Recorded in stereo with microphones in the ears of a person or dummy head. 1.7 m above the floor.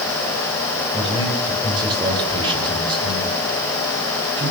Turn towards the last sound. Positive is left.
turn(degrees=-25)  # may be behind; listen again after turning